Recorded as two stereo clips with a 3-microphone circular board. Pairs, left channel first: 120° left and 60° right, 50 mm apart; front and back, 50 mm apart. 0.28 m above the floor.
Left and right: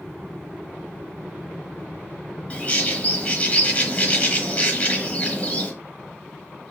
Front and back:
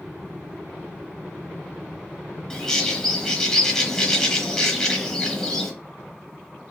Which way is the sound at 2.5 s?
70° left.